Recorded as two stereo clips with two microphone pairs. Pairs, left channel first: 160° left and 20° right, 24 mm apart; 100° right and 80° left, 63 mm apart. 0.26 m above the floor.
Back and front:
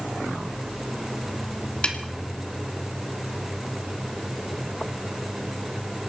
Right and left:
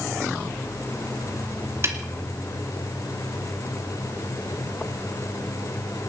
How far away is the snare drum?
About 1.9 m.